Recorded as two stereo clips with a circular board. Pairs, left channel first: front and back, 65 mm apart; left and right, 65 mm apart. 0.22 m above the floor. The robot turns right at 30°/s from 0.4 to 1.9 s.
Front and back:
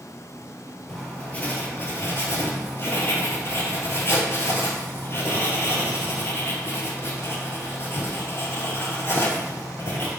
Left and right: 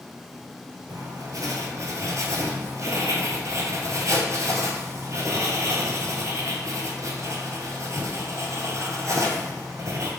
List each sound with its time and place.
0.9 s writing: 80° right, 1.0 m; by 10.1 s 50° right, 1.0 m